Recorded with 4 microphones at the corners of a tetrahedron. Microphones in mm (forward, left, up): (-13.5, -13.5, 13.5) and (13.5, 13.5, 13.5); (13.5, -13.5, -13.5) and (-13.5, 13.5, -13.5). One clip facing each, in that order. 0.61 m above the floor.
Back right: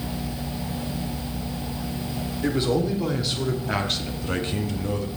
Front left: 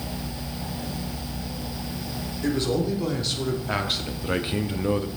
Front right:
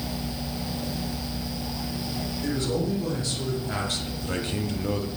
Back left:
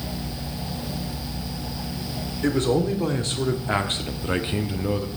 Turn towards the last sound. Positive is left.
turn(degrees=55)